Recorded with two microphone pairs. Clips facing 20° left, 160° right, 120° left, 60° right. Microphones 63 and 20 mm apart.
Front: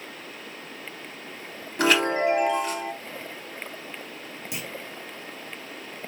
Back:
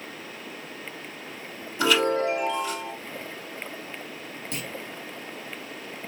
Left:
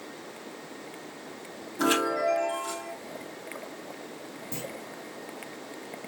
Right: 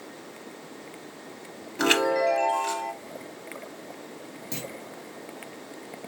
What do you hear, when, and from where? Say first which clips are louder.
1.8 s a chime: front 1 dB, right 3 dB; 15° right, 3 m
4.5 s a clunk: back 1 dB, right 2 dB; 60° right, 1.6 m